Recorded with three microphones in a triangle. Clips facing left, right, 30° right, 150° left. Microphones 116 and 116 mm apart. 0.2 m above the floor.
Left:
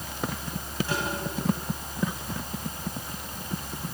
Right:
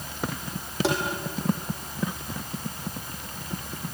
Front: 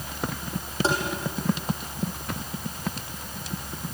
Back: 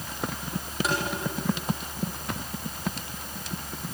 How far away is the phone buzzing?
No phone buzzing in this recording.